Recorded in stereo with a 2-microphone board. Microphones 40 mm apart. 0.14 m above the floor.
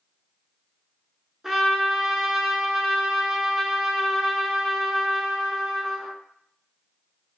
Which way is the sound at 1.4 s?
10° right (ahead or behind).